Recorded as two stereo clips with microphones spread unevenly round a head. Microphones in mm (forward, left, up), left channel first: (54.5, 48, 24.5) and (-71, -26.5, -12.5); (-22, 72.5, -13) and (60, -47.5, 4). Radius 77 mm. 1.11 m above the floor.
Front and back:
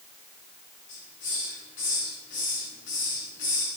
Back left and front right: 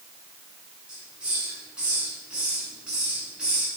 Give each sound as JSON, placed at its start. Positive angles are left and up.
{"t": 0.9, "sound": "a hiss", "azimuth_deg": 30, "distance_m": 9.5}